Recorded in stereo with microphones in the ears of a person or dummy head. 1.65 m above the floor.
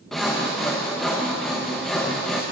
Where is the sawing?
Centre (ahead or behind), 0.9 m.